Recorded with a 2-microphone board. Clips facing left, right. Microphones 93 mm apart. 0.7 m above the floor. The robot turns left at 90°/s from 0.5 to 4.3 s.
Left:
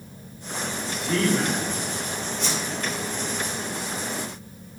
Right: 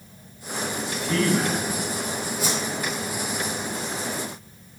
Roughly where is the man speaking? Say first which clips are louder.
Even; ahead.